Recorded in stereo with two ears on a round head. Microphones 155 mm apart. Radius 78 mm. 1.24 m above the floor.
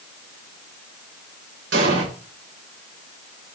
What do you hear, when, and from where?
1.7 s an explosion: 75° right (ahead or behind), 5.5 m